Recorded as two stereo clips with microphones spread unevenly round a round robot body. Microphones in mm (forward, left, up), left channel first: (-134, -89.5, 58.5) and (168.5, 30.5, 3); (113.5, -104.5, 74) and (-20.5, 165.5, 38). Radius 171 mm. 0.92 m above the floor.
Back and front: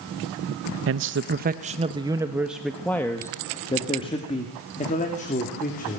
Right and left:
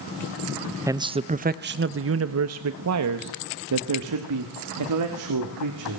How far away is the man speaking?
About 0.9 m.